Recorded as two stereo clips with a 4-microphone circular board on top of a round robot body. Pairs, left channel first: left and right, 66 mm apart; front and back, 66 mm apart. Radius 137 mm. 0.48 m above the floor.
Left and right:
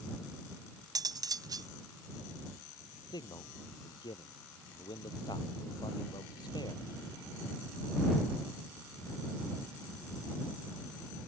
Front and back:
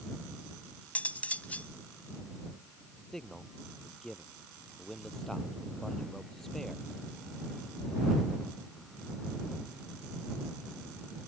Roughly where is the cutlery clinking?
Right.